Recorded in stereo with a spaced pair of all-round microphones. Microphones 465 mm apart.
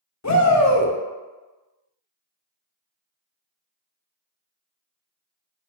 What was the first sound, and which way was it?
A shout, 35° left (ahead or behind).